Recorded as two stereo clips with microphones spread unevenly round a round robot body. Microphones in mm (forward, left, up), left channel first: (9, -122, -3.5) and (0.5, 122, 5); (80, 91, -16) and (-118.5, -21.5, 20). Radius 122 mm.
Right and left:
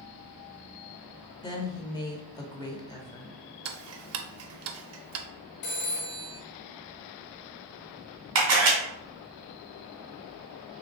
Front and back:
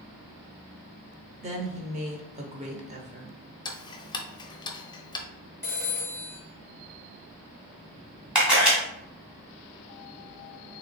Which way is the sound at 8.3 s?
120° left.